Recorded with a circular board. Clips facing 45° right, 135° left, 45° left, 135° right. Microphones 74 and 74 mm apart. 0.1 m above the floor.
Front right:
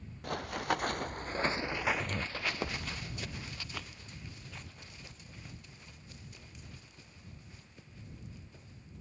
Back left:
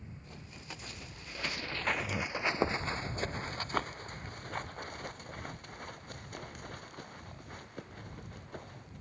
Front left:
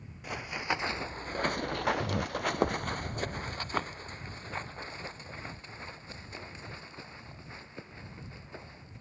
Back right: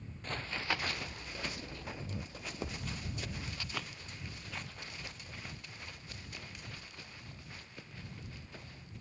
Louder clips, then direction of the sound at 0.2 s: Front right 19 dB, front left 3 dB; 35° right.